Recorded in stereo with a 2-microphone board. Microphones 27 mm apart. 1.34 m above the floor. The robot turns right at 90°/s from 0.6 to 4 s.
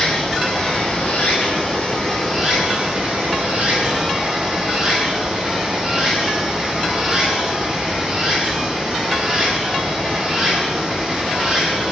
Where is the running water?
30° left, 7.5 m; by 11.9 s 25° right, 7.5 m.